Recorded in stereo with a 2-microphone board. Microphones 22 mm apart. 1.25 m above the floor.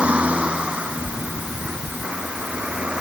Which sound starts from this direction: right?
A vehicle, at 0.0 s.